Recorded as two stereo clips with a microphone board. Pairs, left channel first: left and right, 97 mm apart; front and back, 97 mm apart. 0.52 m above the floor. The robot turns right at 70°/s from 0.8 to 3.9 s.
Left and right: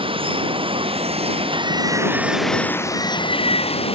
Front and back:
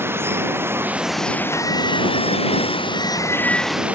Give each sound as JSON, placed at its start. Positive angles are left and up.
{"t": 0.0, "sound": "running water", "azimuth_deg": -115}